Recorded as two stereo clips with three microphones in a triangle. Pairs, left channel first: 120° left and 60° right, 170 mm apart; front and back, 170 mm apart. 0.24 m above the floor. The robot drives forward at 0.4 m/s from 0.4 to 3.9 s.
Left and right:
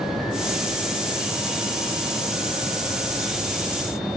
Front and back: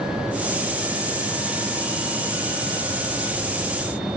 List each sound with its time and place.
Only background noise.